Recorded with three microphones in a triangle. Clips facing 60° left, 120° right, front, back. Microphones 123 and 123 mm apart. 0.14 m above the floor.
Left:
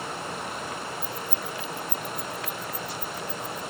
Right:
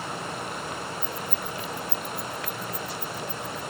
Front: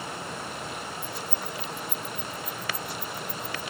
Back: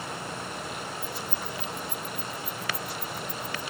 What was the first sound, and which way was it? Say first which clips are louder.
Keys jangling: right 1 dB, even; 155° left.